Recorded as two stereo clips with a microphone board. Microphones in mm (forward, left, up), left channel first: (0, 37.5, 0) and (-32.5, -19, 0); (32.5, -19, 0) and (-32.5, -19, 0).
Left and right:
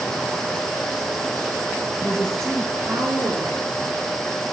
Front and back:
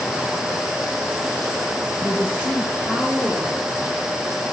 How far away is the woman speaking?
About 1.5 m.